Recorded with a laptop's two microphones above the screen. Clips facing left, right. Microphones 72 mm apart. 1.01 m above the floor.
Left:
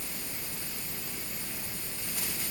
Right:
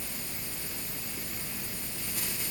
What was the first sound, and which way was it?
Only background noise.